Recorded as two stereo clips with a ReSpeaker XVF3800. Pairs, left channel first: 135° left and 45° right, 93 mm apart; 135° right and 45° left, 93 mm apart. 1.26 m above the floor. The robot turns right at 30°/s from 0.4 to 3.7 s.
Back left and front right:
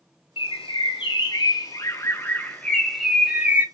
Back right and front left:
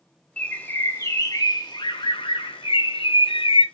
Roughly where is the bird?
Behind left.